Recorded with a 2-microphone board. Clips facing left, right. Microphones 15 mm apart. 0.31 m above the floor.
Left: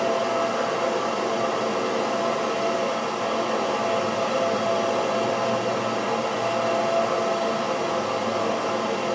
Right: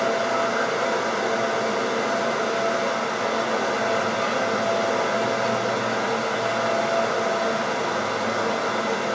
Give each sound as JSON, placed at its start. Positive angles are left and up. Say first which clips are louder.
{"t": 0.0, "sound": "running water", "louder": "right 1 dB", "side_deg": -60, "distance_m": 3.0}